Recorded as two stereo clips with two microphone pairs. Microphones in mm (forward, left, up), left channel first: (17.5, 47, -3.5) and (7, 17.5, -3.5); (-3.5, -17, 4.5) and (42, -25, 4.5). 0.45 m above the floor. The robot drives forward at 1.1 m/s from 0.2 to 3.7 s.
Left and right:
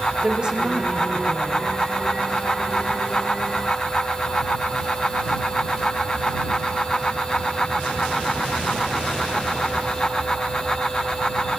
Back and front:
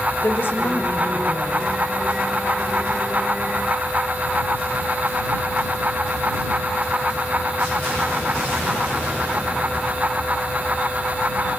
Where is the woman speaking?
165° right, 1.8 m; by 1.7 s 175° right, 3 m.